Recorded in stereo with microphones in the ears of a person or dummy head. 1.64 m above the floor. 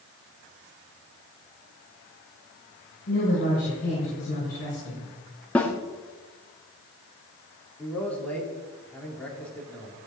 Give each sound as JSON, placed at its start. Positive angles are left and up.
{"t": 3.1, "sound": "a woman speaking", "side_deg": 45, "distance_m": 6.5}
{"t": 5.5, "sound": "a snare drum", "side_deg": 10, "distance_m": 1.2}
{"t": 7.8, "sound": "a man speaking", "side_deg": 5, "distance_m": 4.0}